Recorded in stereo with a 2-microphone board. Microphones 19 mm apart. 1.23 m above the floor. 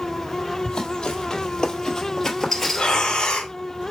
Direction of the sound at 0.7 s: 50° left (ahead or behind).